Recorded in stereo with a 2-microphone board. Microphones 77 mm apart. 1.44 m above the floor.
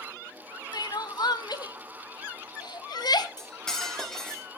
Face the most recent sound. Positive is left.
turn(degrees=5)  # may be behind; listen again after turning